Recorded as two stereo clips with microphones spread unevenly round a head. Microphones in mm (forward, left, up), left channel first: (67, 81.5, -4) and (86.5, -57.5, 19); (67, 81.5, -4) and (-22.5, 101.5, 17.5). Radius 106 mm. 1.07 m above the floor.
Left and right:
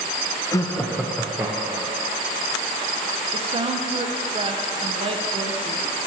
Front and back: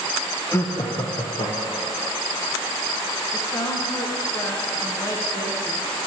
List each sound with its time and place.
0.5 s laughter: 40° left, 0.6 m; by 2.0 s 15° right, 1.2 m
3.3 s a woman speaking: 35° right, 0.5 m